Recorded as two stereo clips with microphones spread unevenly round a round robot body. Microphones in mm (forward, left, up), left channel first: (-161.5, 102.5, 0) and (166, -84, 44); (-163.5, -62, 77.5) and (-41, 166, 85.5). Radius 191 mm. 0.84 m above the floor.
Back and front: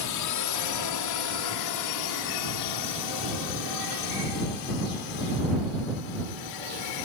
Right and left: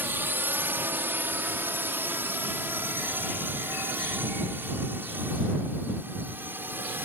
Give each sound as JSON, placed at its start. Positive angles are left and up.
{"t": 0.0, "sound": "a drone", "azimuth_deg": 145}